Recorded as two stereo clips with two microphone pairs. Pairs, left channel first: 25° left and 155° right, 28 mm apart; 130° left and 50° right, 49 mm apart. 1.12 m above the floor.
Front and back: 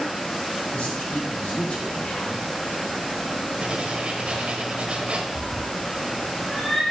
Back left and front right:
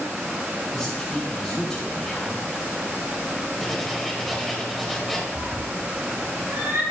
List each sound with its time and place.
0.7 s a man speaking: 50° left, 3 m
3.6 s writing: 145° right, 1.3 m
5.3 s a cat meowing: 55° right, 2 m